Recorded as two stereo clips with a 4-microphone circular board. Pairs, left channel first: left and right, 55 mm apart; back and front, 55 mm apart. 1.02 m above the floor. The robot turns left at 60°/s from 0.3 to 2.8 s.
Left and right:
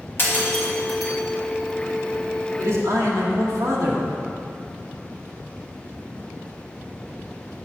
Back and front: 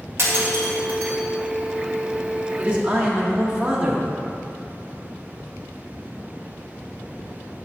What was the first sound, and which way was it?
Breaking glass, 40° left.